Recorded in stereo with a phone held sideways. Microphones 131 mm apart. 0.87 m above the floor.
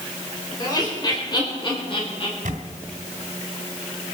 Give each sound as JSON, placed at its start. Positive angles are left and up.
{"t": 0.6, "sound": "laughter", "side_deg": 30, "distance_m": 4.0}
{"t": 2.5, "sound": "a camera shutter", "side_deg": -85, "distance_m": 2.5}